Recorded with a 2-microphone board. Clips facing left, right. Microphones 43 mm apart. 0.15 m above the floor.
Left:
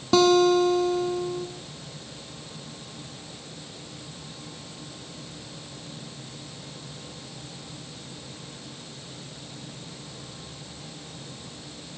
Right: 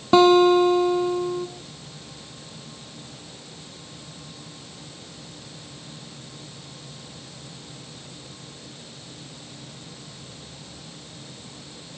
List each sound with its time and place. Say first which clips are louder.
0.1 s a guitar: right 4 dB; 25° right (ahead or behind), 1.2 m